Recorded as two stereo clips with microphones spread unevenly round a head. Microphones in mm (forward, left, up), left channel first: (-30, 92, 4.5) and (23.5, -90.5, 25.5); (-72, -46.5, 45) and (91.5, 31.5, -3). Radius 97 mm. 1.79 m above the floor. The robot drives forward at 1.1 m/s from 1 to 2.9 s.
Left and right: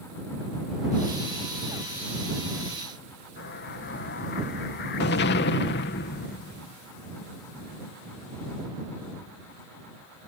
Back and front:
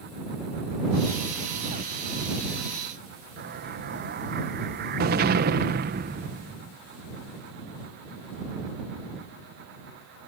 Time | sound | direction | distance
3.4 | an explosion | 70° left | ?